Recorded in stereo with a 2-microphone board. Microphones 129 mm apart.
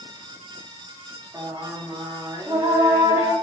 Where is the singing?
25° right (ahead or behind), 0.7 m.